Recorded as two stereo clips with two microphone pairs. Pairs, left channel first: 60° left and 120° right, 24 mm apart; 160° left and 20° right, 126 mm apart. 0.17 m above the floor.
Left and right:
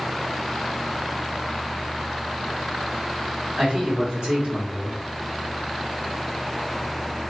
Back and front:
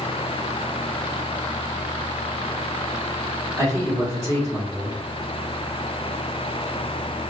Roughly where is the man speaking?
Right.